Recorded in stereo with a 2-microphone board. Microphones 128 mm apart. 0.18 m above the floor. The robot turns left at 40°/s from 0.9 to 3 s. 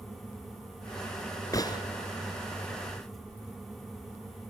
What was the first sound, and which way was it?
A gunshot, 25° left (ahead or behind).